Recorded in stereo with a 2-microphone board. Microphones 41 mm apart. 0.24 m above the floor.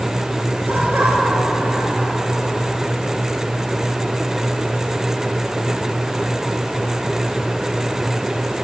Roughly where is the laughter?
Right.